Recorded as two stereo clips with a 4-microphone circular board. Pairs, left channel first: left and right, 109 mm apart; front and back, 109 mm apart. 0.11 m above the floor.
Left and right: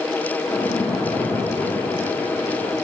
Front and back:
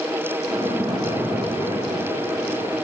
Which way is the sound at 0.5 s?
135° left.